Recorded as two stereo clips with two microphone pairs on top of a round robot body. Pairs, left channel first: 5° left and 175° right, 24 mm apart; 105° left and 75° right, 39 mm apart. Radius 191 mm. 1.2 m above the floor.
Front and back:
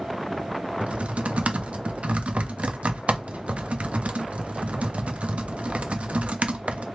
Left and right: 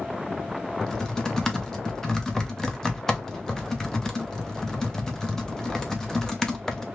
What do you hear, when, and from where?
0.8 s typing on a keyboard: straight behind, 0.8 m